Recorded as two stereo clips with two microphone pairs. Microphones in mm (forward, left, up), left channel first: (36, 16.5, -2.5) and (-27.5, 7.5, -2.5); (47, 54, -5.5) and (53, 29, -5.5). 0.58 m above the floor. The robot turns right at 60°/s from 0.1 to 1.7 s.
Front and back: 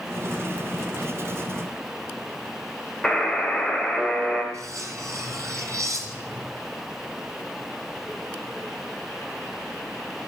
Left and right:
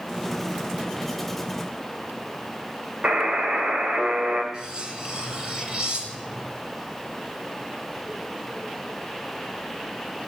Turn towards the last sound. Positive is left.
turn(degrees=-130)